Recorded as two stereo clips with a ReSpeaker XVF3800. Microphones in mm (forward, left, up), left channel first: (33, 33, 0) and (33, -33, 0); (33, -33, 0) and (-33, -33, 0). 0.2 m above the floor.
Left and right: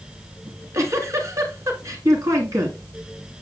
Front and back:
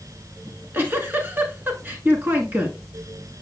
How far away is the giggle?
About 1.6 m.